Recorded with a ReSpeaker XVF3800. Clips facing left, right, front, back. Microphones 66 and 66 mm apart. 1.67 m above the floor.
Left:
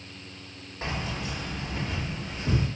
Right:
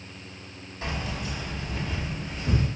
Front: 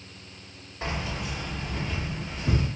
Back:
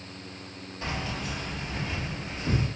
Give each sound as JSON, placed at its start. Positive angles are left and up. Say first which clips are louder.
{"t": 0.8, "sound": "keys jangling", "louder": "even, front 1 dB", "azimuth_deg": 50, "distance_m": 1.3}